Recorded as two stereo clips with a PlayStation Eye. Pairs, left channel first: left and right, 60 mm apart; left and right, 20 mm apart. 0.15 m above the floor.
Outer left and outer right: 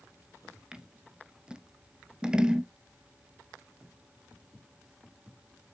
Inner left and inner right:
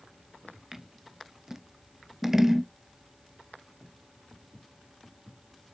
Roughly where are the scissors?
Centre.